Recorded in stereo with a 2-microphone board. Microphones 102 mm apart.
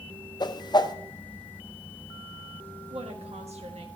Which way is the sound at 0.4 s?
40° left (ahead or behind).